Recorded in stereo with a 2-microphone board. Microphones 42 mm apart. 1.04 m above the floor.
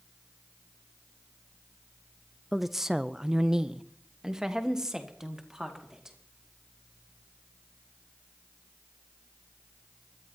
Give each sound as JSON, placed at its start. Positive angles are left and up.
{"t": 2.5, "sound": "a woman speaking", "side_deg": 0, "distance_m": 0.5}